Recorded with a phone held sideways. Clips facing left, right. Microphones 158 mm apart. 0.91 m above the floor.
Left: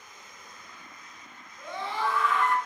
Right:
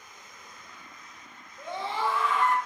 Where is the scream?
30° right (ahead or behind), 2 m.